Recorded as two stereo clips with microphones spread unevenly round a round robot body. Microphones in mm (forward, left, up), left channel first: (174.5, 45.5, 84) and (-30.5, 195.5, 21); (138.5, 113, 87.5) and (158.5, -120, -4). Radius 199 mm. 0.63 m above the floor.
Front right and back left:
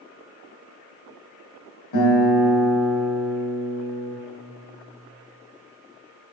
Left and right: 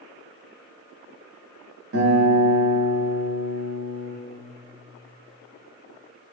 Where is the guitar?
55° right, 2 m.